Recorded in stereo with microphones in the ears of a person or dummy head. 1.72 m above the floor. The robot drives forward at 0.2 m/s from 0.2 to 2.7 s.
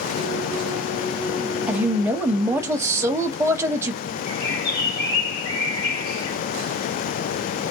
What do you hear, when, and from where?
1.7 s a woman speaking: 15° right (ahead or behind), 0.7 m; by 4.0 s 20° right (ahead or behind), 0.5 m
4.3 s a bird: 30° left (ahead or behind), 1.2 m